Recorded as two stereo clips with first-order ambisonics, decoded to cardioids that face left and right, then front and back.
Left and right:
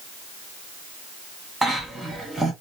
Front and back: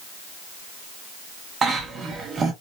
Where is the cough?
160° right, 0.7 m.